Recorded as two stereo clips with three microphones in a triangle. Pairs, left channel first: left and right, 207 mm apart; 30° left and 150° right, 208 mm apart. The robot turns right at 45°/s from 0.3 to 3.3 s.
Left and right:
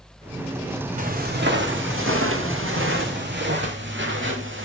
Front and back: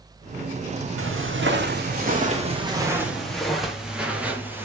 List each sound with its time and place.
1.0 s footsteps: 145° right, 3.5 m; by 4.7 s 70° right, 3.5 m